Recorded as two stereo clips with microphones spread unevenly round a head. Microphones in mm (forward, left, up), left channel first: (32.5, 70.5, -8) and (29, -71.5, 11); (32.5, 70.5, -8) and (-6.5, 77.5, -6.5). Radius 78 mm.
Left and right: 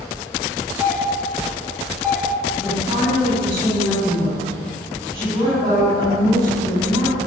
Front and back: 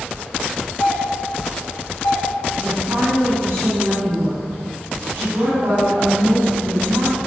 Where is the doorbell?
10° right, 5 m.